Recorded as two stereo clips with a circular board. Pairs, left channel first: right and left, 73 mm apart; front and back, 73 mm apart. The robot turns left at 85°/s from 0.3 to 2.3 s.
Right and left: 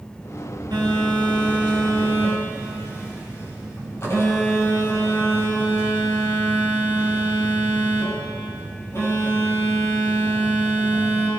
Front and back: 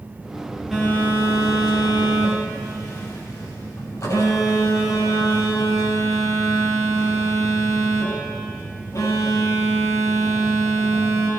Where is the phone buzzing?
95° left, 6 m; by 11.3 s 40° right, 6 m.